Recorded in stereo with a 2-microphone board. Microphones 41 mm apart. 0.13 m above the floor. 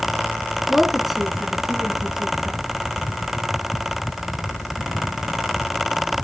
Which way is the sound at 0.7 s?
5° left (ahead or behind).